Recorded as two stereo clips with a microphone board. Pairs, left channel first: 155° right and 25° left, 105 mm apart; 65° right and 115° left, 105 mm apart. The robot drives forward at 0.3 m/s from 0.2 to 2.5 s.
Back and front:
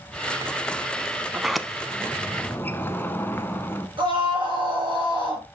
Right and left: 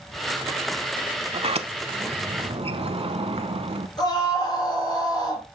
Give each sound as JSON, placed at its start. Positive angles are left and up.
{"t": 1.3, "sound": "a sliding door", "azimuth_deg": 105, "distance_m": 0.6}
{"t": 4.0, "sound": "a scream", "azimuth_deg": -15, "distance_m": 4.5}